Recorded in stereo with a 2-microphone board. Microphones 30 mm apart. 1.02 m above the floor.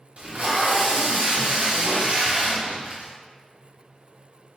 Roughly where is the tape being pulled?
Right.